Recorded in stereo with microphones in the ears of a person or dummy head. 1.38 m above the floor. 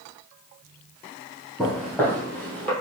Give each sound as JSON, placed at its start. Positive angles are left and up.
{"t": 1.6, "sound": "footsteps", "side_deg": 5, "distance_m": 2.0}